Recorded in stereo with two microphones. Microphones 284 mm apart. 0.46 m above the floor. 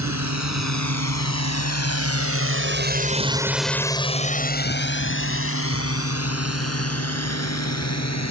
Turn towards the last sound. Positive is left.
turn(degrees=65)  # may be behind; listen again after turning